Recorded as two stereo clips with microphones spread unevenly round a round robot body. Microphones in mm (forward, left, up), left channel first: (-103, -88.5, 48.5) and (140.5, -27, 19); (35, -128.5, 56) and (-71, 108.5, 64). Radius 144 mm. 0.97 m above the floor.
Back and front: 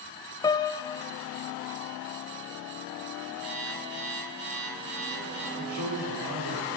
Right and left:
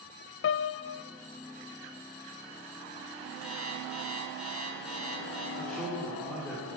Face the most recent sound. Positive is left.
turn(degrees=20)